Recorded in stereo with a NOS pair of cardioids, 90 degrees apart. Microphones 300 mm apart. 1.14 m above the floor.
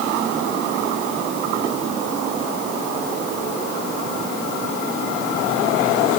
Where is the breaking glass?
No breaking glass in this recording.